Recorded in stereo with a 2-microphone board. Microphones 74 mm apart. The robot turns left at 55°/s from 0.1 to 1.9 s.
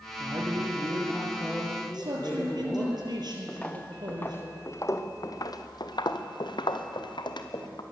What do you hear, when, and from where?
0.2 s a man speaking: 115° right, 5 m; by 2.9 s 150° left, 5 m
1.9 s a man speaking: 65° right (ahead or behind), 5 m
3.5 s footsteps: 15° left (ahead or behind), 2.5 m; by 7.8 s 75° left (ahead or behind), 2.5 m